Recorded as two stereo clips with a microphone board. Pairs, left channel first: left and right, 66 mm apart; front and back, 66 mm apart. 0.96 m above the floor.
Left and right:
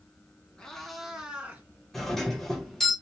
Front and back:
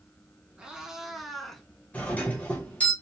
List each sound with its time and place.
0.6 s a cat meowing: 135° left, 0.9 m; by 1.6 s 80° right, 0.9 m
1.9 s a doorbell: 10° left, 1.0 m